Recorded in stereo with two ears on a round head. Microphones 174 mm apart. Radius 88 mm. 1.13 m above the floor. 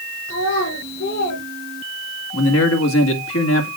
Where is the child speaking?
75° left (ahead or behind), 2.5 m; by 1.4 s 60° left (ahead or behind), 4 m.